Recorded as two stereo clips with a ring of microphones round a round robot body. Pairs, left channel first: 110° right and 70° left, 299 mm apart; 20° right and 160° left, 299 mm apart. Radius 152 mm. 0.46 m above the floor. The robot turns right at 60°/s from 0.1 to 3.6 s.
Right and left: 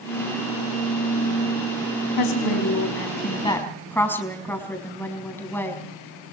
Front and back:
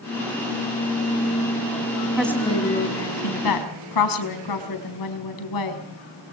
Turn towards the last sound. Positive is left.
turn(degrees=-30)